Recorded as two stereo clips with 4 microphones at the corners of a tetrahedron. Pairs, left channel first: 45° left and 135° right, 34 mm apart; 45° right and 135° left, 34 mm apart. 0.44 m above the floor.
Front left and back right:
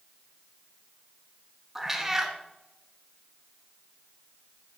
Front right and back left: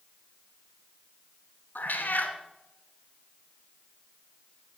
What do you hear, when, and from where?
1.8 s a cat meowing: 60° right, 1.2 m